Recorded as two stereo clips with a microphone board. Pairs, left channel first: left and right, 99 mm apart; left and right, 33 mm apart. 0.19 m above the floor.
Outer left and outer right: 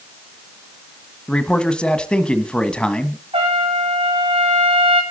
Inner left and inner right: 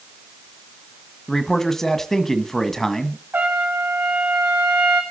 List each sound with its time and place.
1.3 s a man speaking: 10° left (ahead or behind), 1.4 m
3.3 s a trumpet: 80° right, 5.5 m